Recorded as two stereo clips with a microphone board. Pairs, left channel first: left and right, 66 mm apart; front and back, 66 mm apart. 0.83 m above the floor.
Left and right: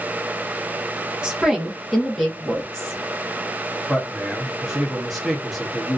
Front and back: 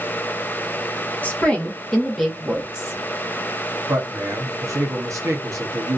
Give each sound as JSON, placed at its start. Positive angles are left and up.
{"t": 1.2, "sound": "a woman speaking", "azimuth_deg": -25, "distance_m": 1.0}
{"t": 3.9, "sound": "a man speaking", "azimuth_deg": 180, "distance_m": 1.0}